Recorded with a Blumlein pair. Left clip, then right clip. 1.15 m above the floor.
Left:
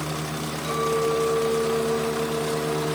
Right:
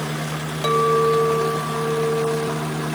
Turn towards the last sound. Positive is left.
turn(degrees=-45)